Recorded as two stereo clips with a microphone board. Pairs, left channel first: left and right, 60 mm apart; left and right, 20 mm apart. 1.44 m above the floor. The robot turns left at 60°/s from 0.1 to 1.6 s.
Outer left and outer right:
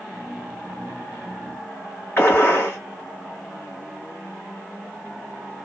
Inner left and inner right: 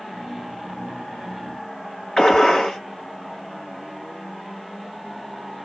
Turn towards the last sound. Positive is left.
turn(degrees=35)  # may be behind; listen again after turning